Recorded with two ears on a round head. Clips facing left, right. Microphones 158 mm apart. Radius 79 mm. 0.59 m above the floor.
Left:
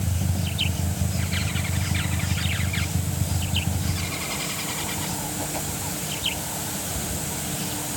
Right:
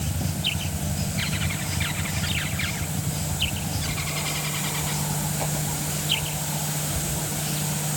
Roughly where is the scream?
I don't hear a scream.